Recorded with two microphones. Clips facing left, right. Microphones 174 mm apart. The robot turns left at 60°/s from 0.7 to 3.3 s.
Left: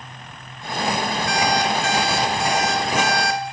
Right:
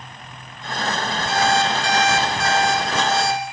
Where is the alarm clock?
90° left, 0.9 m; by 3.4 s 30° right, 0.9 m.